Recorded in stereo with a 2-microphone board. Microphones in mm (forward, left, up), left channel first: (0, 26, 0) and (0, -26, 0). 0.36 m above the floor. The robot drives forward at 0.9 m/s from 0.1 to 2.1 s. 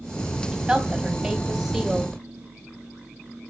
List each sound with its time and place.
0.5 s a woman speaking: 10° right (ahead or behind), 3 m; by 2.2 s 15° right (ahead or behind), 1.8 m